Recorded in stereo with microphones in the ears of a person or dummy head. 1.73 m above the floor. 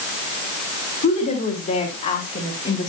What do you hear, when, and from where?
1.0 s a woman speaking: 45° left (ahead or behind), 4.5 m; by 2.9 s 40° left (ahead or behind), 2.5 m